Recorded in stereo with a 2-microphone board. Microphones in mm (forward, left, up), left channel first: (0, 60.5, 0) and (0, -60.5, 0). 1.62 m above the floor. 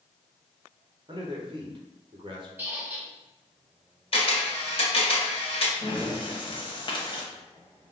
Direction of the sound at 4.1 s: 50° left (ahead or behind).